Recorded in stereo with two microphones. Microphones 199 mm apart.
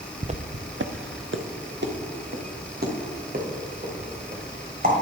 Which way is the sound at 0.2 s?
30° right (ahead or behind).